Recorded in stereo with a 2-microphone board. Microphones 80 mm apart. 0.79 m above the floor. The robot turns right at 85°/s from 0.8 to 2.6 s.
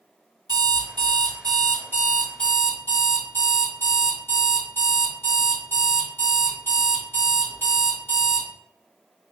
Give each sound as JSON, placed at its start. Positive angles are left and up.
{"t": 0.5, "sound": "an alarm clock", "azimuth_deg": -120, "distance_m": 1.6}